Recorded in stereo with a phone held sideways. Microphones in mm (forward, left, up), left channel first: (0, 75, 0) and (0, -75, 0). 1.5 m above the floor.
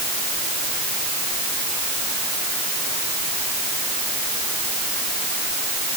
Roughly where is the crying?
I don't hear crying.